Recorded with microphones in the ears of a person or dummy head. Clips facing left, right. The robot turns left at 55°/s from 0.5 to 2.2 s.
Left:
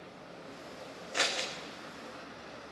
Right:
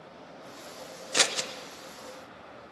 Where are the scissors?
65° right (ahead or behind), 0.9 m; by 1.5 s 45° right (ahead or behind), 0.9 m.